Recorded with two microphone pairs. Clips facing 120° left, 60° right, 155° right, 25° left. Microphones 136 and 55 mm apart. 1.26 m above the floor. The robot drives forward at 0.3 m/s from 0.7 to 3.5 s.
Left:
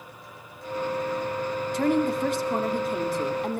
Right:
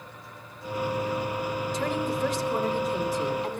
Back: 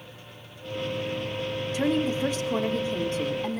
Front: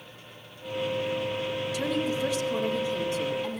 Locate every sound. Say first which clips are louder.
1.7 s a woman speaking: left 7 dB, back 5 dB; 150° left, 2.5 m; by 3.6 s 155° left, 3 m